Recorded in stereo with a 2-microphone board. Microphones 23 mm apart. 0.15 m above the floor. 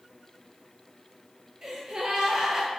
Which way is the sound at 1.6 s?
40° right (ahead or behind).